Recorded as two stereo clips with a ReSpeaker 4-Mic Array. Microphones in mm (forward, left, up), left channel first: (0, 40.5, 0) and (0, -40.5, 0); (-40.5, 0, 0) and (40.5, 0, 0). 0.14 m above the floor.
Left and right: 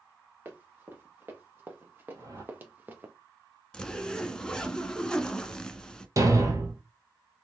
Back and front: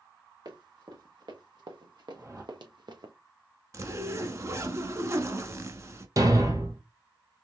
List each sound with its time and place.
0.5 s running footsteps: 30° right, 2 m; by 3.1 s 25° right, 0.8 m
2.1 s a whoosh: 45° right, 1.1 m
3.7 s a zipper: 15° left, 0.6 m
6.2 s a thud: 45° right, 1.1 m